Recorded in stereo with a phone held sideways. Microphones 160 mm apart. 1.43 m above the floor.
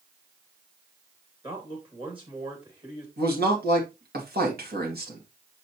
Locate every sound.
1.4 s a man speaking: 35° right (ahead or behind), 2.5 m
3.2 s a man speaking: 75° right (ahead or behind), 2.5 m